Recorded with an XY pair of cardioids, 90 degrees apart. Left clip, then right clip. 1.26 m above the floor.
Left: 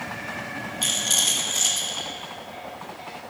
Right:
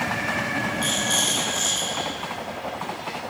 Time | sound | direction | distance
0.8 | a rattle | 50° left | 2 m